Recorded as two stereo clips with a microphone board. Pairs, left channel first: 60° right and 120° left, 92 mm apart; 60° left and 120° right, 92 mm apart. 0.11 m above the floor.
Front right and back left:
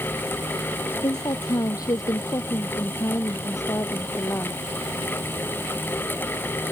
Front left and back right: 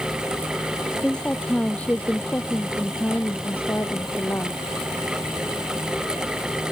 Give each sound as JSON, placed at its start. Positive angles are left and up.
{"t": 1.0, "sound": "a woman speaking", "azimuth_deg": -20}